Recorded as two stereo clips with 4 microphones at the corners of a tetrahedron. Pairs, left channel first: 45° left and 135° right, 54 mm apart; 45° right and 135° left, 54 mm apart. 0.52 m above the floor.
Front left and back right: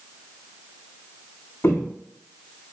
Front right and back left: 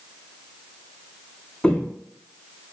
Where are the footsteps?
20° left, 0.8 m.